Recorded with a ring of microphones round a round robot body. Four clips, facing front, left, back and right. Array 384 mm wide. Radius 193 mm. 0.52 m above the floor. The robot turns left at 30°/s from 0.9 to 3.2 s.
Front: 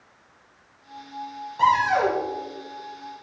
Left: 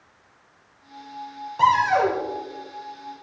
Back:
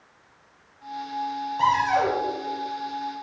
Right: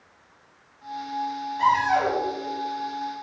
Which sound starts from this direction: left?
A cupboard door, at 1.6 s.